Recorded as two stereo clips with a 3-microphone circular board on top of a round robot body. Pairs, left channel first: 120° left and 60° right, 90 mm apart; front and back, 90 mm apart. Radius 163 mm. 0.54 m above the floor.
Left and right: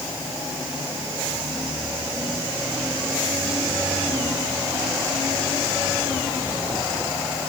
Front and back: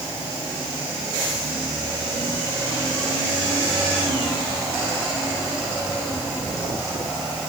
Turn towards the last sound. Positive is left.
No sound to turn to.